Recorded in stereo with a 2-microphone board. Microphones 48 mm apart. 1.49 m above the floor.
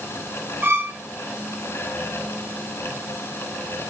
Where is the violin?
40° right (ahead or behind), 5.5 m.